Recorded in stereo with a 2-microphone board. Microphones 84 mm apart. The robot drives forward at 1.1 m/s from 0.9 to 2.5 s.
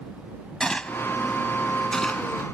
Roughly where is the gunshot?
Centre.